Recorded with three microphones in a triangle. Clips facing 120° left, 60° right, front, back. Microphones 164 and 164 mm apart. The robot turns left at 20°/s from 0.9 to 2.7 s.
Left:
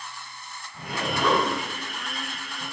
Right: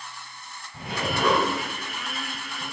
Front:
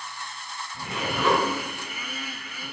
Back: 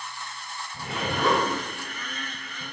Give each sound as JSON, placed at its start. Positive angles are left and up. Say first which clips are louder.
{"t": 0.7, "sound": "a zipper", "louder": "right 1 dB, even", "azimuth_deg": -125, "distance_m": 3.0}